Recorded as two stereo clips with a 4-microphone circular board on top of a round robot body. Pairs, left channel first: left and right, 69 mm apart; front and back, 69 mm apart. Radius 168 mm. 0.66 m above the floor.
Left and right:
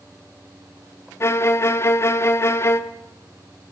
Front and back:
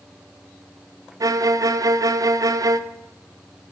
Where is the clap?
I don't hear a clap.